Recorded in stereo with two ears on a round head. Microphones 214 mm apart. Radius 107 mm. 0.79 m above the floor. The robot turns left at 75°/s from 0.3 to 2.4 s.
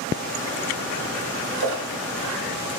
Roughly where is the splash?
Right.